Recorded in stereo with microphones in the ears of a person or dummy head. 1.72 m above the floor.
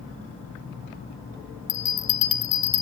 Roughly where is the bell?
Centre.